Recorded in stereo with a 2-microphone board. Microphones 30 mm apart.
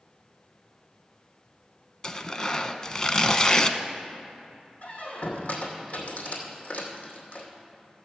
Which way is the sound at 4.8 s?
60° left (ahead or behind).